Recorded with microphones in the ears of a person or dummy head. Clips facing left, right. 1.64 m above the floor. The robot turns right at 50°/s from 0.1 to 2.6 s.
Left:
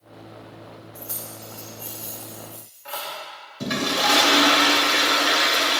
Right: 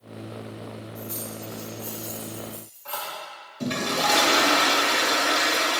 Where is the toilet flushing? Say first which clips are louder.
Left 1 dB; 5° left (ahead or behind), 1.0 m.